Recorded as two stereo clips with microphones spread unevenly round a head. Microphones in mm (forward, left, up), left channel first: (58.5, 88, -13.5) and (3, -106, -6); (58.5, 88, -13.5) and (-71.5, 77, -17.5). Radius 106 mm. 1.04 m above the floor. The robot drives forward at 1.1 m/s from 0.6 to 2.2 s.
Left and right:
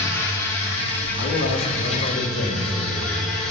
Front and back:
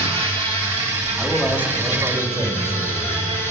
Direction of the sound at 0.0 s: 150° left.